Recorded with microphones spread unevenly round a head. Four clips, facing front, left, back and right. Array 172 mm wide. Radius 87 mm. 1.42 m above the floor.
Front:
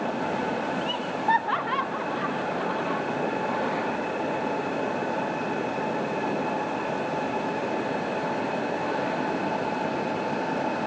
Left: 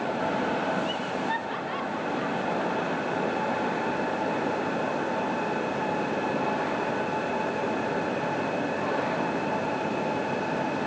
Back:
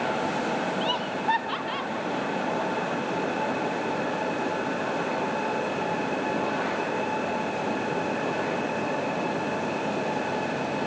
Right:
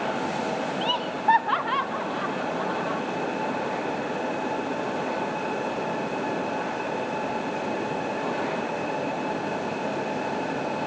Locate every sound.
0.8 s laughter: 105° right, 0.5 m; by 3.0 s 55° right, 2 m